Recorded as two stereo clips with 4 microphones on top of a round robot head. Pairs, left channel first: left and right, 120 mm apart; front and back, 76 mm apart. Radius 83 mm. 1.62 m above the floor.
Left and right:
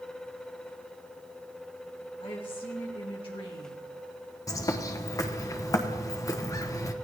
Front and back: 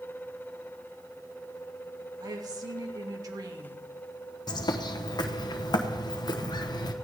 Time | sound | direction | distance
2.2 | a woman speaking | 145° left | 2.5 m
4.5 | a bird | 30° left | 1.2 m